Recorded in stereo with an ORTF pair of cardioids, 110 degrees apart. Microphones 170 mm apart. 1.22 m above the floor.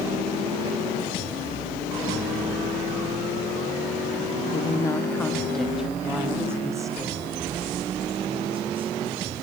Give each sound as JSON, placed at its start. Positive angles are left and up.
{"t": 4.5, "sound": "a woman speaking", "azimuth_deg": 30, "distance_m": 2.5}